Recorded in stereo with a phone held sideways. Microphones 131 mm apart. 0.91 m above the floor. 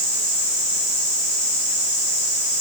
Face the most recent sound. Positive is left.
No sound to turn to.